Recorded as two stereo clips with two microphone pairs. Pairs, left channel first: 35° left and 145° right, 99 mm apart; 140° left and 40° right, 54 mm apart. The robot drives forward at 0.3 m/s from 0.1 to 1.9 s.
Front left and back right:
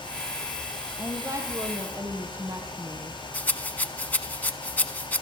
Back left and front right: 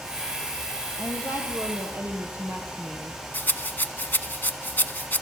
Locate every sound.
1.0 s a woman speaking: 85° right, 4.5 m; by 3.2 s 90° right, 4 m
3.3 s a rattle: 105° left, 0.9 m